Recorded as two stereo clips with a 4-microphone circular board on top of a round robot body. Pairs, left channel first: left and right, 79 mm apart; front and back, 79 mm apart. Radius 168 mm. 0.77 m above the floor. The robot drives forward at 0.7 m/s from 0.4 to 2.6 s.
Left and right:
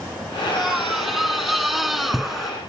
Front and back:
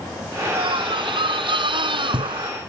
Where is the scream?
175° right.